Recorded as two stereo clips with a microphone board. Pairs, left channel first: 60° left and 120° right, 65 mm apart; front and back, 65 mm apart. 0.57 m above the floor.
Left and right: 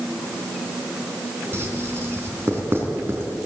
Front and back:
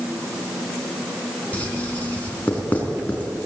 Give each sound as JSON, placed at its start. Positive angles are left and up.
{"t": 1.5, "sound": "writing", "azimuth_deg": -65, "distance_m": 4.0}